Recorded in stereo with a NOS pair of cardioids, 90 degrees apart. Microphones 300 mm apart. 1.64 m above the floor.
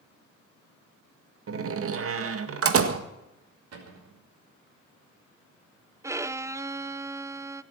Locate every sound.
1.5 s a door slam: 50° right, 1.9 m
3.7 s a cupboard door: 55° right, 5.5 m
6.0 s a violin: 10° right, 0.6 m